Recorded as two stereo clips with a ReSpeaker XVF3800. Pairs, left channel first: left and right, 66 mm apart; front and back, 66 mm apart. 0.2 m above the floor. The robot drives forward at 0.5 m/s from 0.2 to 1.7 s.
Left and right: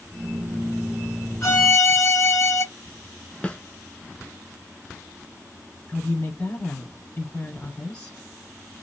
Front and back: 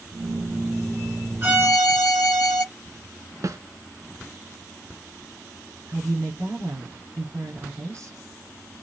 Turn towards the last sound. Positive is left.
turn(degrees=160)